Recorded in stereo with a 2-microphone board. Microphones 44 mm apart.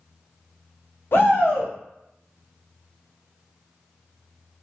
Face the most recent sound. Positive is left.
turn(degrees=55)  # may be behind; listen again after turning